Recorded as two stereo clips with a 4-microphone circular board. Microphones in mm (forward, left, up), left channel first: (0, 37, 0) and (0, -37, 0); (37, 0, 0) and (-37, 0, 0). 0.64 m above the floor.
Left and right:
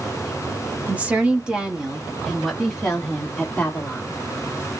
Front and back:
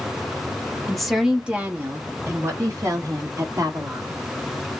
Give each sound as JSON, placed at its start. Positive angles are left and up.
{"t": 0.9, "sound": "a woman speaking", "azimuth_deg": -75, "distance_m": 1.0}